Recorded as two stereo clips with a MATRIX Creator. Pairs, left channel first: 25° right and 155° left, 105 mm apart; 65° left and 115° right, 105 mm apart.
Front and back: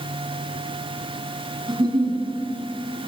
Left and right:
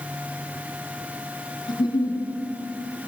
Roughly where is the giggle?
Left.